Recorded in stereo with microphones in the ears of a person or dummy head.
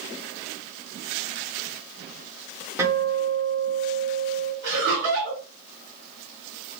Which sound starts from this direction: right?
Laughter, at 4.6 s.